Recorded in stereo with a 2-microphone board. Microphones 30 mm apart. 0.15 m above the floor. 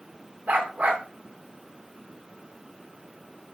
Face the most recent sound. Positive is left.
turn(degrees=-65)  # may be behind; listen again after turning